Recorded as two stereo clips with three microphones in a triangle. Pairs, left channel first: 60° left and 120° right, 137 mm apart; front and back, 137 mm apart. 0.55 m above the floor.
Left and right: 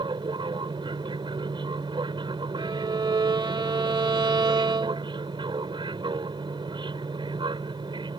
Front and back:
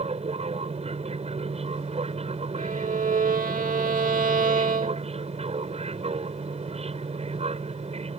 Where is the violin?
175° right.